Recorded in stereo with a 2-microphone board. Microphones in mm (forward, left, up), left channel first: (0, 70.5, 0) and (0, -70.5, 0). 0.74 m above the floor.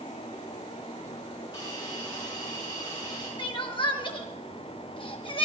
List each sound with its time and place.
1.5 s a hiss: 30° left (ahead or behind), 7.5 m
3.4 s crying: 35° left (ahead or behind), 1.0 m